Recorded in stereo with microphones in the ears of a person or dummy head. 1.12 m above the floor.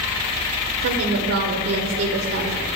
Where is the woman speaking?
60° right (ahead or behind), 1.1 m.